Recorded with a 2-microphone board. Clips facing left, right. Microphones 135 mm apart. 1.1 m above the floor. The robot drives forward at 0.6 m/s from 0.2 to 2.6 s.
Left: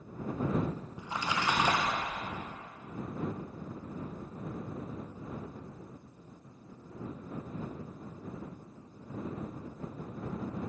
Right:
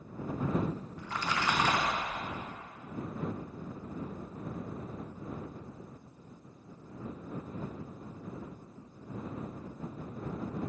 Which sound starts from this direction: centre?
A splash, at 1.0 s.